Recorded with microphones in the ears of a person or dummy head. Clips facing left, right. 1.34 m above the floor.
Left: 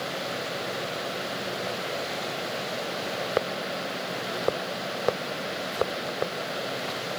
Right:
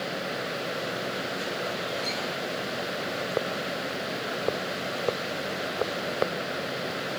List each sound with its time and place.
Only background noise.